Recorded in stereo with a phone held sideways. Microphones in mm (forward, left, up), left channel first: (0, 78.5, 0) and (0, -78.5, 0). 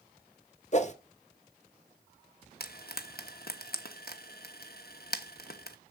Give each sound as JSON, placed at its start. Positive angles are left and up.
{"t": 0.7, "sound": "a whoosh", "side_deg": 45, "distance_m": 0.9}
{"t": 2.6, "sound": "frying", "side_deg": 70, "distance_m": 1.1}